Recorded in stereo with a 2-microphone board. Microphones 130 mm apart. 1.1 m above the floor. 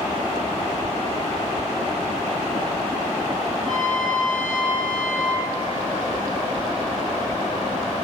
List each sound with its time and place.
3.6 s a trumpet: 80° left, 6.5 m